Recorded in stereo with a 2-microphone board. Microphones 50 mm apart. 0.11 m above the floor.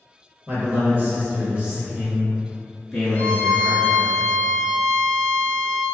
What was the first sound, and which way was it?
A man speaking, 40° right (ahead or behind).